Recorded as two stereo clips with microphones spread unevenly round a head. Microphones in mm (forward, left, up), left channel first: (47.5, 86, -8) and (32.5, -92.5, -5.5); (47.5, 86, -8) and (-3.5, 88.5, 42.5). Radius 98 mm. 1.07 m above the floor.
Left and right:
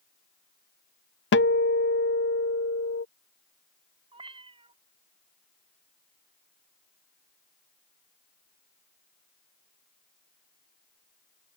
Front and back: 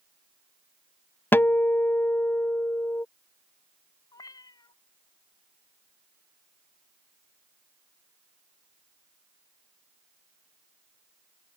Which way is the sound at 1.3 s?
65° left.